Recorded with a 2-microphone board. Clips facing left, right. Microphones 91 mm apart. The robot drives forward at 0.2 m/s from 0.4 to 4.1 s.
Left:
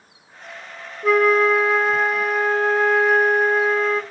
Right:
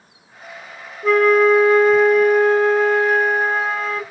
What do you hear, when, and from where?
1.0 s a flute: centre (ahead or behind), 0.5 m